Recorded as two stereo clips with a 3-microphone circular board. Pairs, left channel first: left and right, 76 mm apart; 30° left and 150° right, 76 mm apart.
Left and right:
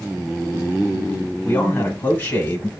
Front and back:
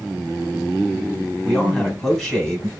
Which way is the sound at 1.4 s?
115° left.